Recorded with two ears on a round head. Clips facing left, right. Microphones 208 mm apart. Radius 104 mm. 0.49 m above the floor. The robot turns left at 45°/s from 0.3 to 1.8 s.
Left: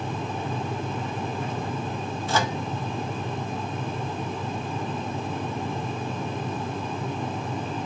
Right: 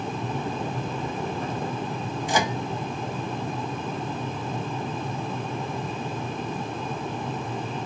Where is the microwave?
15° right (ahead or behind), 0.5 m.